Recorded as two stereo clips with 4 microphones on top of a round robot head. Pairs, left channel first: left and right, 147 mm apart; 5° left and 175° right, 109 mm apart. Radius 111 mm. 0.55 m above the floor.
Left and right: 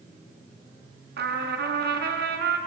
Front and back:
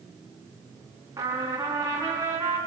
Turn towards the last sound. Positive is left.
turn(degrees=-105)